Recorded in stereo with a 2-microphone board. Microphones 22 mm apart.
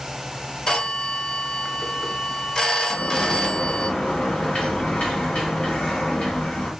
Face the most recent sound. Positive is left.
turn(degrees=65)  # may be behind; listen again after turning